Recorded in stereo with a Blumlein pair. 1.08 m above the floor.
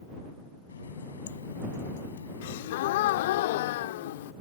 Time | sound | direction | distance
0.7 | a running tap | 70° left | ?
2.4 | a gasp | 55° left | ?